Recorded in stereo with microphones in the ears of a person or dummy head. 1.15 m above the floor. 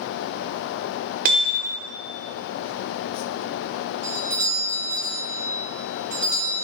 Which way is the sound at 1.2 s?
50° right (ahead or behind).